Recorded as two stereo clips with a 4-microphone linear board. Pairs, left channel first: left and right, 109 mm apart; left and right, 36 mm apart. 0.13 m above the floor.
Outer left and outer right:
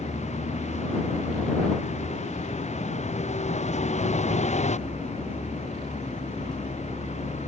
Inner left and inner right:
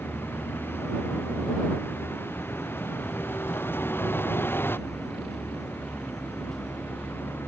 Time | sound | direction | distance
0.0 | a vehicle | 85° left | ?